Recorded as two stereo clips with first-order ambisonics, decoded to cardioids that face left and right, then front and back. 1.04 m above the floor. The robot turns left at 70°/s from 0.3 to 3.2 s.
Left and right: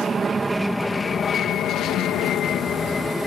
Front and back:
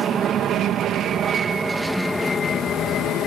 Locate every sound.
0.0 s an aircraft: 150° right; by 3.3 s 5° left